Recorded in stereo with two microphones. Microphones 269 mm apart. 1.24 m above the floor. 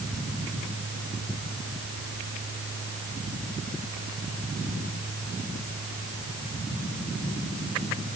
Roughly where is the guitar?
No guitar in this recording.